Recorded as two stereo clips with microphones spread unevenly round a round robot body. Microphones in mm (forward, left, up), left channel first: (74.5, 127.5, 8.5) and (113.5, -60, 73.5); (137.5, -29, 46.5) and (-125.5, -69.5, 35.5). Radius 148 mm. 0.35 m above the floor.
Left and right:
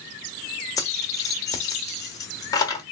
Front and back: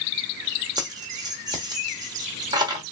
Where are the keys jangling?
125° left, 1.0 m.